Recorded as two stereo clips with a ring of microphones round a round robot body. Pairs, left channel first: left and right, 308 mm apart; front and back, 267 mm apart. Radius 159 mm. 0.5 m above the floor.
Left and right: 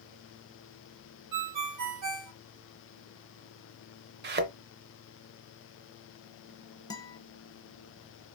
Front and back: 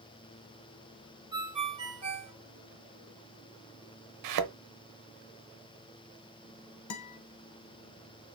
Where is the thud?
150° right, 0.6 m.